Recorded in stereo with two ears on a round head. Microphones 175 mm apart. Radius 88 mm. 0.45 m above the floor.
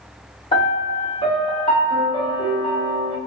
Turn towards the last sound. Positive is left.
turn(degrees=25)  # may be behind; listen again after turning